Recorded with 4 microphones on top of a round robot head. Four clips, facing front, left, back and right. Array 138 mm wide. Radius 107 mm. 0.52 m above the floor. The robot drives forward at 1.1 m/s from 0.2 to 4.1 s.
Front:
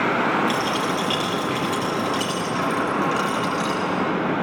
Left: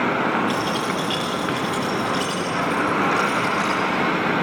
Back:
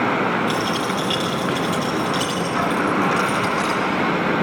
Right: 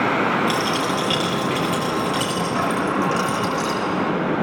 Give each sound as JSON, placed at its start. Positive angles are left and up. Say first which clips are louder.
{"t": 0.5, "sound": "a dropped coin", "louder": "right 2 dB, back 1 dB", "azimuth_deg": -90, "distance_m": 5.5}